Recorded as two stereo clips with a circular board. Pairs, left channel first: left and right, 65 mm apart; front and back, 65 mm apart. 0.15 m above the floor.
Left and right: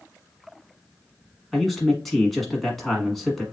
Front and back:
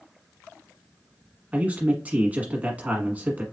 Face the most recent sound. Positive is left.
turn(degrees=175)